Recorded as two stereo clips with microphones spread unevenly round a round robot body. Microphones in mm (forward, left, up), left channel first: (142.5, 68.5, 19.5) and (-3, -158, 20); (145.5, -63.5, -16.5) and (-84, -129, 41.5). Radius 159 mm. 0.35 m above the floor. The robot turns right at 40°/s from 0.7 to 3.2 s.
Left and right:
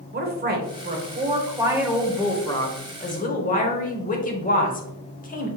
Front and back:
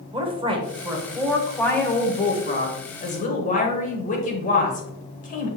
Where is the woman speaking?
90° right, 1.1 m; by 5.5 s 10° left, 1.1 m.